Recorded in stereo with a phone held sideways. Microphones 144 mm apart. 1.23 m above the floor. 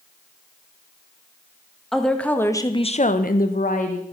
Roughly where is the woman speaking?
Centre.